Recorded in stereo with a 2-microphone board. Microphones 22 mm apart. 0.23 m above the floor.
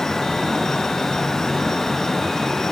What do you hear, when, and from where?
Only background noise.